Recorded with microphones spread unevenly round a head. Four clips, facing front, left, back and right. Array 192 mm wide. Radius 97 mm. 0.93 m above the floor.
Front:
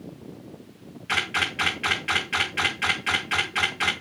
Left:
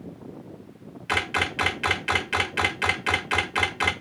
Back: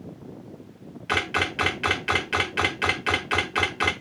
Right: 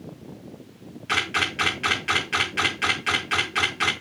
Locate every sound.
1.1 s a camera shutter: 165° left, 0.7 m